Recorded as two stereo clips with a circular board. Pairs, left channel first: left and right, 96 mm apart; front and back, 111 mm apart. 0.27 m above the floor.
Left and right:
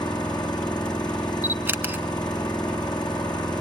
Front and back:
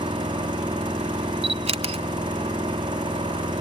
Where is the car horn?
No car horn in this recording.